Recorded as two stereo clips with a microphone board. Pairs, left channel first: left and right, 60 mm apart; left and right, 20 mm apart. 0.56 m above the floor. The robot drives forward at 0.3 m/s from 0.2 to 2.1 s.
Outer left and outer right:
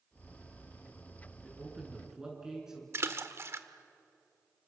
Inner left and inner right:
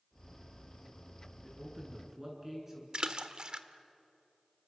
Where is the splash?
50° right (ahead or behind), 1.2 m.